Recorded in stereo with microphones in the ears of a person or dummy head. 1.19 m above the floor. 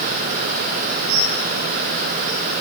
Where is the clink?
No clink in this recording.